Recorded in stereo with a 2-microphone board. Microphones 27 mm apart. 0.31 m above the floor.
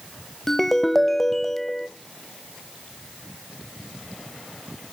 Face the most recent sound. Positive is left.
turn(degrees=10)  # may be behind; listen again after turning